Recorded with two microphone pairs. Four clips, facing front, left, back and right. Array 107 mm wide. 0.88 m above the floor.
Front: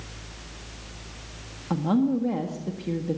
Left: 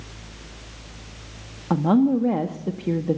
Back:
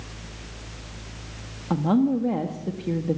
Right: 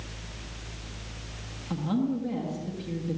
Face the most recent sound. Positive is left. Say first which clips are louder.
# left 10 dB, back 2 dB
turn(degrees=105)